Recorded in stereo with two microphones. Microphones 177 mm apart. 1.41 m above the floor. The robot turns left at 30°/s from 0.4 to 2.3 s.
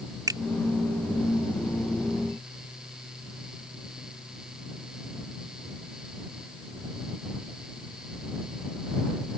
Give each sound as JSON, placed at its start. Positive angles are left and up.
{"t": 0.3, "sound": "a finger snap", "side_deg": -20}